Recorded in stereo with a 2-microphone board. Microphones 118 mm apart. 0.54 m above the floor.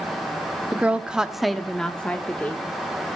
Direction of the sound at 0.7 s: 10° right (ahead or behind).